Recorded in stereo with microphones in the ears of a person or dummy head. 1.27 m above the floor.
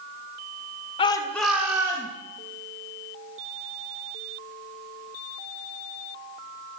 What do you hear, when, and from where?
1.0 s a shout: 30° left (ahead or behind), 1.0 m; by 2.1 s 25° right (ahead or behind), 1.8 m